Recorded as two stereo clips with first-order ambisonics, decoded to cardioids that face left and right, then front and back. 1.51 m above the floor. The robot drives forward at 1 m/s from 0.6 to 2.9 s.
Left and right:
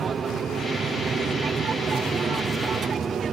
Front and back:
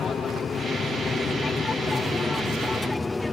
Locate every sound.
0.0 s an aircraft: 50° right; by 3.3 s 70° right